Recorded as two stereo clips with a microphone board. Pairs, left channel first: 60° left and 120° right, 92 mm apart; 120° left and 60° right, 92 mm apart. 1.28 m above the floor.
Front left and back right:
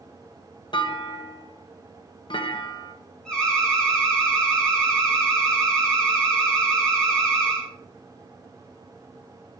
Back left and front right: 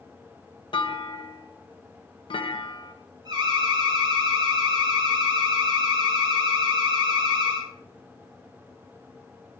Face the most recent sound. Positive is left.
turn(degrees=-20)